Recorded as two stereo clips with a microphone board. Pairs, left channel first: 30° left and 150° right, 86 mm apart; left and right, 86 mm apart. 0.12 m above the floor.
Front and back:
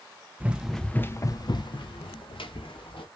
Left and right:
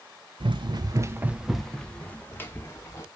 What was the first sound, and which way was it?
Running footsteps, 75° right.